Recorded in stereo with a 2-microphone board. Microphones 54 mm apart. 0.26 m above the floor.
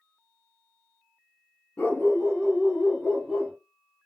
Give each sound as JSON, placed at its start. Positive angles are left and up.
{"t": 1.8, "sound": "a dog barking", "side_deg": 35, "distance_m": 1.2}